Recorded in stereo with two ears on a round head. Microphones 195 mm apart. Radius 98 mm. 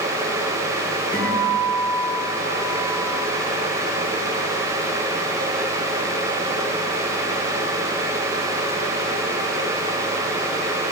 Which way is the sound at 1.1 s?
25° left (ahead or behind).